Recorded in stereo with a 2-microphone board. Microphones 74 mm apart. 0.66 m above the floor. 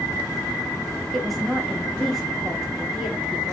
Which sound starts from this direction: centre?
A woman speaking, at 1.1 s.